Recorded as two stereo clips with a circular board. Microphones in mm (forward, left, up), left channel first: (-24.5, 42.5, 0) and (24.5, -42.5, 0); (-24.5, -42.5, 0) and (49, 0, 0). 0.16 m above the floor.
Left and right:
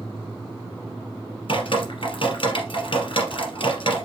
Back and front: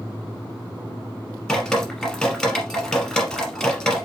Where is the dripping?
130° left, 2.0 m.